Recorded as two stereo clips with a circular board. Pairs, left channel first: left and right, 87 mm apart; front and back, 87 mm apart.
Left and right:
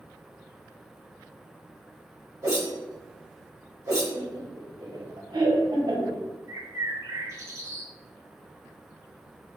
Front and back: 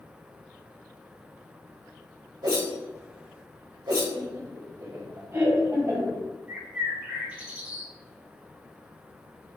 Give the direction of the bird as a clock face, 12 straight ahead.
4 o'clock.